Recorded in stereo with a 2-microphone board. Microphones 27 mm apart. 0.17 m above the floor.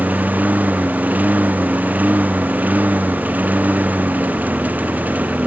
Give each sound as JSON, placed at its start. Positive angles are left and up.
{"t": 0.0, "sound": "a lawn mower", "side_deg": -90}